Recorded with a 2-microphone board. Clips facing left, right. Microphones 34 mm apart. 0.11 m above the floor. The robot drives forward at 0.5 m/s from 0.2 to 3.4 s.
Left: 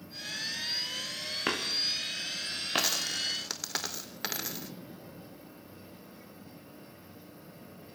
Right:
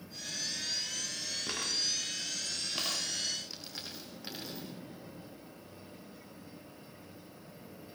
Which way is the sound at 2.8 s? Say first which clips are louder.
Left 6 dB; 75° left (ahead or behind).